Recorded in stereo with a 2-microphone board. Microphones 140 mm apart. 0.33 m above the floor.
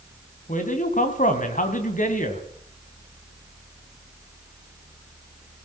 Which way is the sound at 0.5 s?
60° left (ahead or behind).